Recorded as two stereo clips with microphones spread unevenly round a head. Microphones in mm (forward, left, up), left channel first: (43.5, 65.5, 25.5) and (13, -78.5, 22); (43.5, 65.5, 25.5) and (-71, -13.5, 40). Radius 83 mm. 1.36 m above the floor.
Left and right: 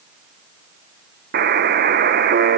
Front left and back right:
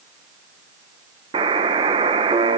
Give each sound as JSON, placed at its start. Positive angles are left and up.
{"t": 1.3, "sound": "a buzzer", "azimuth_deg": -85, "distance_m": 1.0}